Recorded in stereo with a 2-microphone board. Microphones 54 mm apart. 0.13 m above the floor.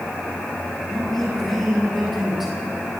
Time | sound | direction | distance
0.9 | a man speaking | 10° left (ahead or behind) | 6.5 m